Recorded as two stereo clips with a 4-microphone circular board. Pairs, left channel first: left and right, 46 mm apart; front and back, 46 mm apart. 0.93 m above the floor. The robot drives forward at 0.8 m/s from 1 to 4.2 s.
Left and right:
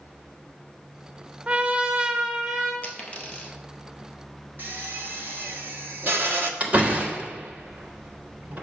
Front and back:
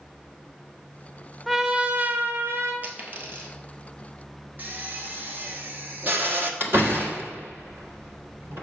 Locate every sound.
1.5 s a trumpet: 90° right, 0.6 m; by 2.7 s 170° right, 1.2 m
2.8 s a dropped coin: 135° left, 1.3 m; by 3.5 s 150° left, 1.7 m
4.6 s a drill: 130° right, 1.0 m
6.6 s a door slam: 150° right, 1.3 m